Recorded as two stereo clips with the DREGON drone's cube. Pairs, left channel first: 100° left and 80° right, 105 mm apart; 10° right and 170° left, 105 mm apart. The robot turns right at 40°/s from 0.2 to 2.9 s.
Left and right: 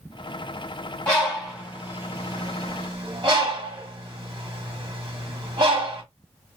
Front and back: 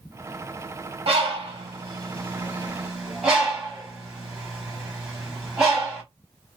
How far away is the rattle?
I don't hear a rattle.